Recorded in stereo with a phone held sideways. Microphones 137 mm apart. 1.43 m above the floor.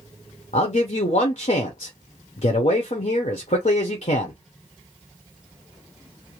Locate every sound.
0.5 s a man speaking: 60° left (ahead or behind), 0.6 m